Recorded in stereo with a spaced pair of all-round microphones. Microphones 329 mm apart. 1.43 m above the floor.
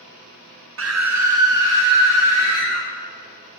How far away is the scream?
About 0.5 m.